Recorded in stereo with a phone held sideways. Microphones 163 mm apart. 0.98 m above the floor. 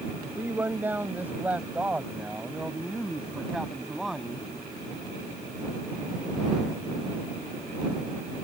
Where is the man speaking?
15° right (ahead or behind); by 4.5 s centre (ahead or behind).